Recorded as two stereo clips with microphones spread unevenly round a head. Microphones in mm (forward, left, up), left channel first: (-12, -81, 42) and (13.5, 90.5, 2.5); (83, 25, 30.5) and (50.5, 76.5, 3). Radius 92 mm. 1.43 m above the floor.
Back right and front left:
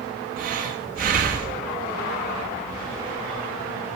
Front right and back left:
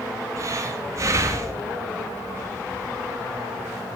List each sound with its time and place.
0.4 s breathing: 90° left, 0.8 m